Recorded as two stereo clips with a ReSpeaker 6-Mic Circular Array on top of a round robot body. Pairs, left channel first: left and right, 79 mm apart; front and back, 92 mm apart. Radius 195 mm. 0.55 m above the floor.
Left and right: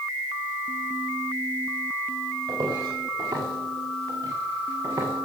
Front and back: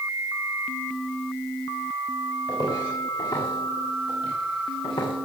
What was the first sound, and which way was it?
Footsteps, 50° right.